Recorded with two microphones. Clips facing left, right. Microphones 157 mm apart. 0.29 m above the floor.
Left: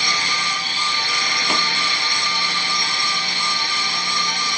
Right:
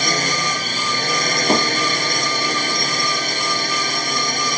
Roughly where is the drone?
Right.